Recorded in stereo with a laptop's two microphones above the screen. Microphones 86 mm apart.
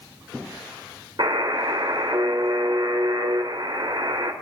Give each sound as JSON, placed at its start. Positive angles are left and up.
{"t": 1.2, "sound": "a buzzer", "side_deg": -60, "distance_m": 3.5}